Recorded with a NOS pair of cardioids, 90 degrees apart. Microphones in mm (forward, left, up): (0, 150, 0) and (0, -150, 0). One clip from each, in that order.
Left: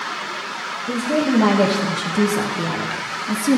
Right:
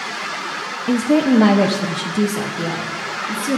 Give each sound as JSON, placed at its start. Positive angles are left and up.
{"t": 0.9, "sound": "a woman speaking", "azimuth_deg": -40, "distance_m": 0.9}